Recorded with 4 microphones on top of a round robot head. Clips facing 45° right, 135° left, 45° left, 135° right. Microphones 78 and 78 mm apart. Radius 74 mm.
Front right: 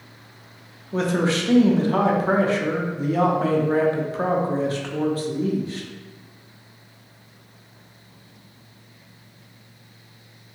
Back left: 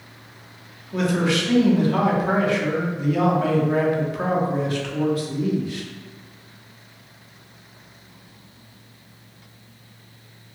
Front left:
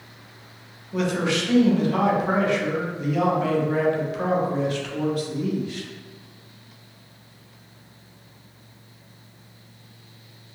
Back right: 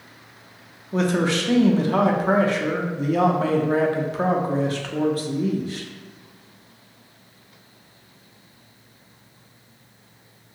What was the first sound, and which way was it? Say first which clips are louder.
A man speaking: even, back right 2 dB; 95° right.